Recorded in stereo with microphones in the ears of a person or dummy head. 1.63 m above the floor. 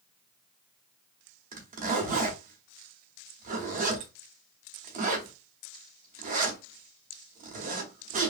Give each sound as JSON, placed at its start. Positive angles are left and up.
{"t": 1.5, "sound": "a zipper", "side_deg": -40, "distance_m": 0.8}